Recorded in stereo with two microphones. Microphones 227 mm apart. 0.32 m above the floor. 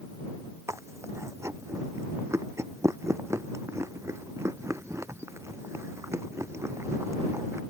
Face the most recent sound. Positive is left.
turn(degrees=-10)  # may be behind; listen again after turning